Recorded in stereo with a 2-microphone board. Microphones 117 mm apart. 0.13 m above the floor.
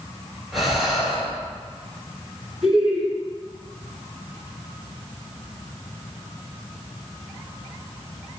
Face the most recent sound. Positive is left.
turn(degrees=-5)  # may be behind; listen again after turning